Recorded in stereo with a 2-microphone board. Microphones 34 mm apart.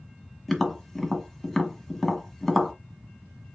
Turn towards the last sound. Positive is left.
turn(degrees=0)  # may be behind; listen again after turning